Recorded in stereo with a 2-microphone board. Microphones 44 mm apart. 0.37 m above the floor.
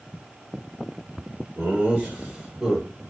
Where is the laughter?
35° right (ahead or behind), 1.0 m; by 3.0 s 5° left (ahead or behind), 1.0 m.